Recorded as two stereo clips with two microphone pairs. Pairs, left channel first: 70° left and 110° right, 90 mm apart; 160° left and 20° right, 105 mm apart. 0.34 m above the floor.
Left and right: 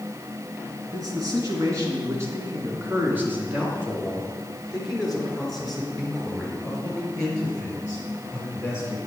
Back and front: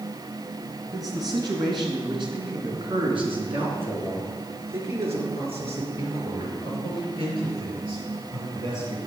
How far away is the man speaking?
About 3.5 m.